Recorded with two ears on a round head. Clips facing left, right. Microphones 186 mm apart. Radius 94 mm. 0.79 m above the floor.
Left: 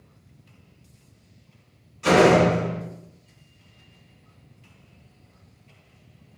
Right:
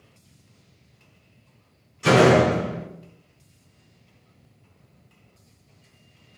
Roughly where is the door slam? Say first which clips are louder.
Even; right.